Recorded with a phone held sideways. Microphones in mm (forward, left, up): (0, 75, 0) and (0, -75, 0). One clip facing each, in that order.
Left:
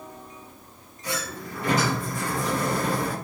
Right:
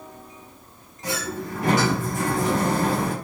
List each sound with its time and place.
1.0 s a sliding door: 85° right, 6 m